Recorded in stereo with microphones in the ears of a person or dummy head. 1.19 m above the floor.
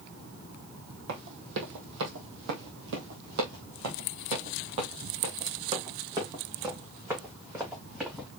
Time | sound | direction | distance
1.1 | running footsteps | 60° right (ahead or behind) | 2.5 m